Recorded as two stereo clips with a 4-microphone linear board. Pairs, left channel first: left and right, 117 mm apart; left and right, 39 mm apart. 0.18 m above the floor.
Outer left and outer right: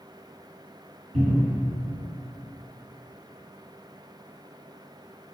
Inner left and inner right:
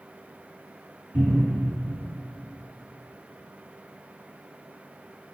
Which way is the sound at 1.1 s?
80° right.